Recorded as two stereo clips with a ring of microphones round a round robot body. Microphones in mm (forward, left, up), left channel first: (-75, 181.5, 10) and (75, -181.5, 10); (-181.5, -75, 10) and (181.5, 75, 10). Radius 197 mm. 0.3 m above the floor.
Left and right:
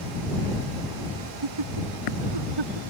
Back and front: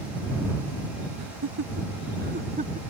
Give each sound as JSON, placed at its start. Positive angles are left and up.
{"t": 1.2, "sound": "laughter", "azimuth_deg": -30}